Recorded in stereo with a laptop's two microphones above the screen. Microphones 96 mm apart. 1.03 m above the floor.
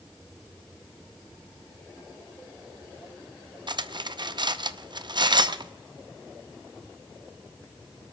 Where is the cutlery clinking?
50° right (ahead or behind), 0.6 m.